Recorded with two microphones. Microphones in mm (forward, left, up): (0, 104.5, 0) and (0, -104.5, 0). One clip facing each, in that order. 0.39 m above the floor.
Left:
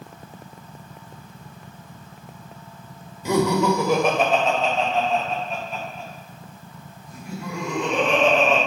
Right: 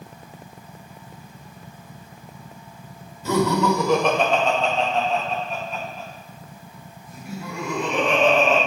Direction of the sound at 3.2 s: 15° left (ahead or behind).